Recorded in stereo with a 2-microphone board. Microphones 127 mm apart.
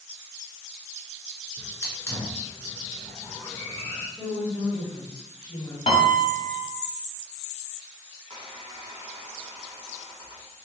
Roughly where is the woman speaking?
Left.